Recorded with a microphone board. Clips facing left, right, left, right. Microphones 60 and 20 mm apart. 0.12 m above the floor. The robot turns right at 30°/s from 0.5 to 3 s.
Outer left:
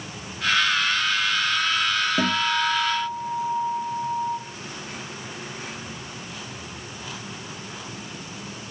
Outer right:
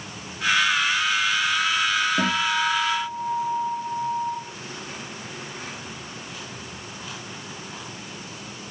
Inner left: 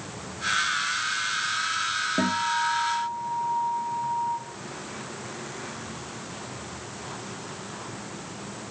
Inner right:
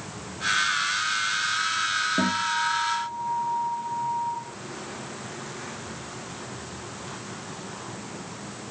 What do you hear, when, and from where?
2.2 s a guitar: 10° left (ahead or behind), 4 m; by 4.4 s 15° right (ahead or behind), 4 m